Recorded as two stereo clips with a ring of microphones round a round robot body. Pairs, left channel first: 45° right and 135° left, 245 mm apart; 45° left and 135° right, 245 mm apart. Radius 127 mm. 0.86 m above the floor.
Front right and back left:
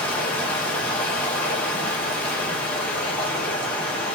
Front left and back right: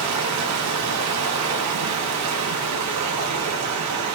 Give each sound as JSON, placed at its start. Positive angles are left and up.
{"t": 0.0, "sound": "running water", "azimuth_deg": -130, "distance_m": 0.8}